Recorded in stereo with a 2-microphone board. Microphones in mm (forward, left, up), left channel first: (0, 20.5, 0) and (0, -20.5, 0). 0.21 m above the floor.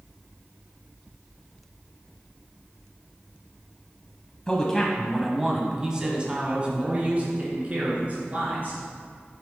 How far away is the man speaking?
About 1.1 m.